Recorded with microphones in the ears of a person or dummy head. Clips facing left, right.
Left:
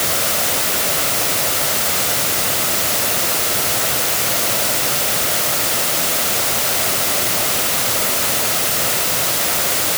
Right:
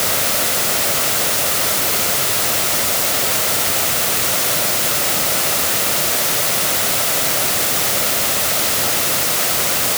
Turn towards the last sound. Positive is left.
No sound to turn to.